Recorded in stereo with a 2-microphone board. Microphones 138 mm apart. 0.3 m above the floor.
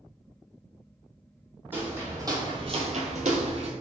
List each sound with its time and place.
1.7 s footsteps: 15° right (ahead or behind), 1.1 m; by 3.7 s 50° right (ahead or behind), 0.7 m